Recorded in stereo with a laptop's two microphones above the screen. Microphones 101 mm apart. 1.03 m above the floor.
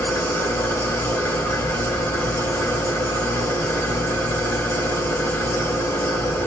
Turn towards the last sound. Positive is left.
turn(degrees=25)  # may be behind; listen again after turning